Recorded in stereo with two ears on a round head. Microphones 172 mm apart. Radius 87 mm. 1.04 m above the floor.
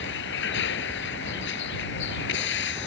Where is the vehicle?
70° left (ahead or behind).